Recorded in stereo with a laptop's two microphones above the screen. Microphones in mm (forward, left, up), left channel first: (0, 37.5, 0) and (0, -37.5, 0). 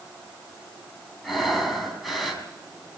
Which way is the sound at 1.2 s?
Centre (ahead or behind).